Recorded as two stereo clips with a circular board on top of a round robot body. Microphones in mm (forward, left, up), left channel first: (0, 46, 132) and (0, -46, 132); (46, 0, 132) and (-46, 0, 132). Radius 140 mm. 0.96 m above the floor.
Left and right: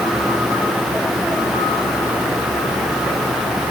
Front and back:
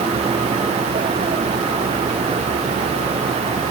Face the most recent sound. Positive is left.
No sound to turn to.